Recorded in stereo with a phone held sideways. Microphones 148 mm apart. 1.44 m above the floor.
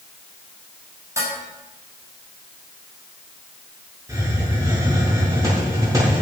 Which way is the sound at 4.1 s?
25° right (ahead or behind).